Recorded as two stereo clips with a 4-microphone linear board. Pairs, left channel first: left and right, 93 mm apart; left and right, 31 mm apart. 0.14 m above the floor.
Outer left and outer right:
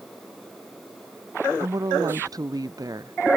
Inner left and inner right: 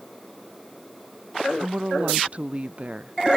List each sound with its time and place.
1.6 s a woman speaking: 40° right (ahead or behind)